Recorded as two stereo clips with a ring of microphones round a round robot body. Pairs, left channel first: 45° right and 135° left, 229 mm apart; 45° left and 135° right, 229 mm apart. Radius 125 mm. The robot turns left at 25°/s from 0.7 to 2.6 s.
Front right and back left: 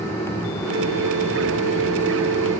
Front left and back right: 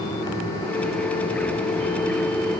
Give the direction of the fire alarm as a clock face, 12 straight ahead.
No fire alarm in this recording.